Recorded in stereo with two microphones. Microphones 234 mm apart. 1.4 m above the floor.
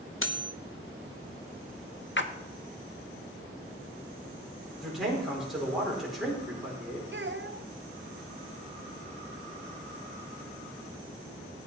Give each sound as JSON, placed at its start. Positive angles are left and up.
{"t": 0.2, "sound": "cutlery clinking", "side_deg": 60, "distance_m": 0.9}
{"t": 2.2, "sound": "a splash", "side_deg": 55, "distance_m": 0.8}
{"t": 4.8, "sound": "a man speaking", "side_deg": 0, "distance_m": 4.5}
{"t": 7.1, "sound": "a child speaking", "side_deg": -50, "distance_m": 1.1}